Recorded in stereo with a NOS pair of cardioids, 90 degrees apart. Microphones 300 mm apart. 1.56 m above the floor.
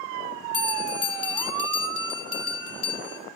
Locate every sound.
0.5 s a bell: 55° left, 3 m